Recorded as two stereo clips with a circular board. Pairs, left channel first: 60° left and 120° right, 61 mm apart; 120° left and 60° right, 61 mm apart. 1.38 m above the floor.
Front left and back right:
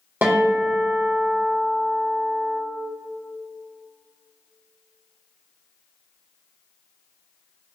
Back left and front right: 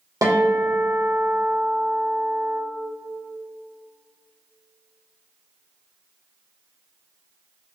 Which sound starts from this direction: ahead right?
A guitar, at 0.2 s.